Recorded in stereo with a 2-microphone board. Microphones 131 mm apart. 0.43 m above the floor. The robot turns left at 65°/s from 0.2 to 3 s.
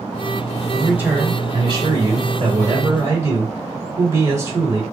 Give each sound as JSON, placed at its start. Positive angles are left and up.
{"t": 0.7, "sound": "a man speaking", "azimuth_deg": 0, "distance_m": 2.5}